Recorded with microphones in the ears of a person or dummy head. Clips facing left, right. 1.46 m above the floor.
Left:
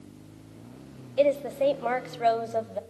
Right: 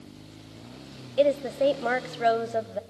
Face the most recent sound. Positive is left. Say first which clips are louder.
# right 1 dB
turn(degrees=-5)  # may be behind; listen again after turning